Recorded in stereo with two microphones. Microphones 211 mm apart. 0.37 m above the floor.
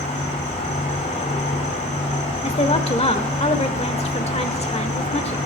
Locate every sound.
0.0 s an insect: 30° left (ahead or behind), 3.5 m
2.4 s a woman speaking: 30° left (ahead or behind), 1.2 m